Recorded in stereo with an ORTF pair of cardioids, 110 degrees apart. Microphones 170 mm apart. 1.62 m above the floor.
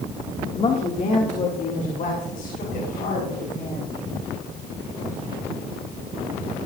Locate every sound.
0.5 s a woman speaking: 45° left, 1.6 m; by 3.9 s 60° left, 5 m